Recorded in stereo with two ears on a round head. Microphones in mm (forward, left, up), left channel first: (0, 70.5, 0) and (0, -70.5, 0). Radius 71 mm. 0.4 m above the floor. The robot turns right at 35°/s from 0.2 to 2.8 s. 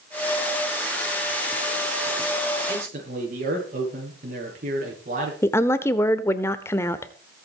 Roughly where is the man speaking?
Right.